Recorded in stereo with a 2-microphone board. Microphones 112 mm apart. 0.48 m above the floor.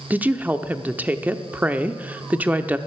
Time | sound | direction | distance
0.1 | a woman speaking | 15° right (ahead or behind) | 0.7 m